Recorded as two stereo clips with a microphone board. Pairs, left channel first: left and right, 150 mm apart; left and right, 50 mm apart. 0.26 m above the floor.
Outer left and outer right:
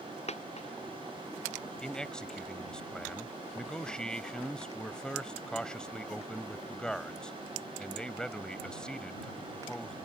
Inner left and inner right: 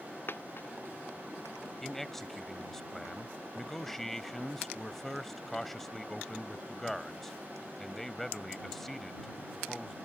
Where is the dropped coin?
50° left (ahead or behind).